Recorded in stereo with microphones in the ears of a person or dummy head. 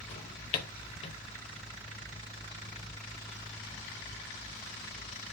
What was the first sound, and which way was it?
A drawer, 35° left (ahead or behind).